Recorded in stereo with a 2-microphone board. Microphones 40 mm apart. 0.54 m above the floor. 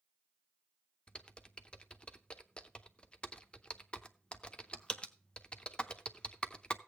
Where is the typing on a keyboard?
30° left (ahead or behind), 0.7 m.